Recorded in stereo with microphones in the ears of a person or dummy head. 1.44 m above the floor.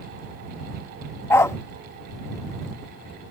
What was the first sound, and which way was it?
A dog barking, 15° left (ahead or behind).